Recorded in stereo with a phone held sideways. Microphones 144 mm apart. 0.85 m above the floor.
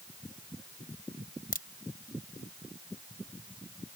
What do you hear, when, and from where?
1.5 s a crack: 85° left